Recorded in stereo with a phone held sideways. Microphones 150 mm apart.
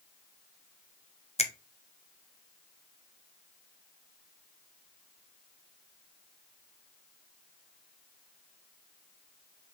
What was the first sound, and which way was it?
A finger snap, 45° left (ahead or behind).